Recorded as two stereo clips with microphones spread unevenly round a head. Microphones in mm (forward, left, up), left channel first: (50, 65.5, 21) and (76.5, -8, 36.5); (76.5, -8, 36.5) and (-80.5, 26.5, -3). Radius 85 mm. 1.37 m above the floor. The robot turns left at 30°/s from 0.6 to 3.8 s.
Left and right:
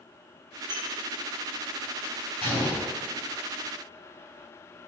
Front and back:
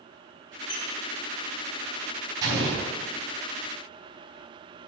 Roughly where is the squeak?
Ahead right.